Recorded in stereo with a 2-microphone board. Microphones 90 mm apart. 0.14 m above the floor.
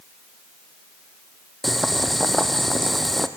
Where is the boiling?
Centre (ahead or behind), 1.6 m.